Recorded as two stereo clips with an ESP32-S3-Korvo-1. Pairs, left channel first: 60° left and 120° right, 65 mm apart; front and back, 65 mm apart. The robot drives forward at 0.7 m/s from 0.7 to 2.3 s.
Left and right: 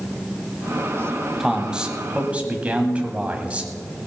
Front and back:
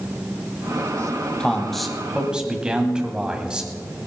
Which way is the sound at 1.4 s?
50° right.